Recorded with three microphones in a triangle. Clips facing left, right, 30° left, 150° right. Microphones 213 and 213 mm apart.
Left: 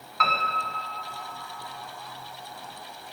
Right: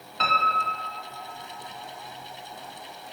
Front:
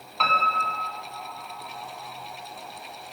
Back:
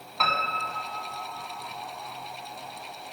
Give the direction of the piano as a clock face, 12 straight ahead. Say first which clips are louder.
Right 1 dB, front 2 dB; 2 o'clock.